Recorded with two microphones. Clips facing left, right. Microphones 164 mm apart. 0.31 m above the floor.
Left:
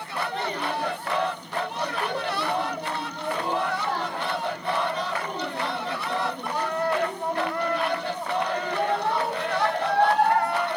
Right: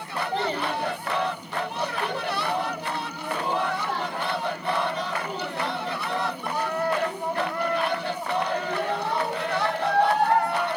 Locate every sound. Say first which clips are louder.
0.3 s a child speaking: right 4 dB; 40° right (ahead or behind), 1.4 m; by 10.5 s 80° left, 5 m